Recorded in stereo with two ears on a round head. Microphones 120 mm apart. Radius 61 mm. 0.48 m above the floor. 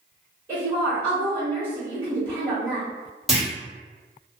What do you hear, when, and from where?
0.5 s a woman speaking: 15° right (ahead or behind), 1.3 m
3.3 s a clunk: centre (ahead or behind), 1.2 m